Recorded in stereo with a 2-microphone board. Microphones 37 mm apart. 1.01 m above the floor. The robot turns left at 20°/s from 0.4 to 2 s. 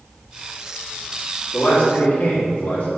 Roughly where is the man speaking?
Left.